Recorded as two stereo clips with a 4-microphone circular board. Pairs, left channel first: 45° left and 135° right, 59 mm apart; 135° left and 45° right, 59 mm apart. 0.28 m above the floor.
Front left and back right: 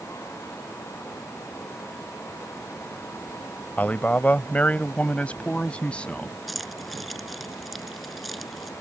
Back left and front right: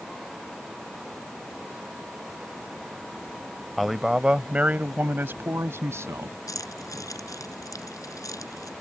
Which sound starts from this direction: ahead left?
A man speaking, at 3.8 s.